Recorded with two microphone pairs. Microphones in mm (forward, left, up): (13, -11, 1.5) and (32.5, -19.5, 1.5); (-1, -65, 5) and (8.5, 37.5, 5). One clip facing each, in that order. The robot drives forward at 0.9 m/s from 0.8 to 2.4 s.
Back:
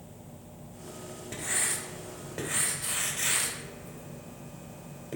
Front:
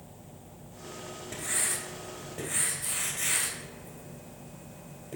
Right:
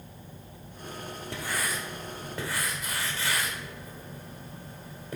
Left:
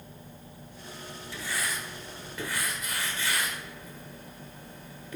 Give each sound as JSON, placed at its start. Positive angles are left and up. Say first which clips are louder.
{"t": 1.3, "sound": "writing", "louder": "back 1 dB, right 1 dB", "azimuth_deg": -115, "distance_m": 0.9}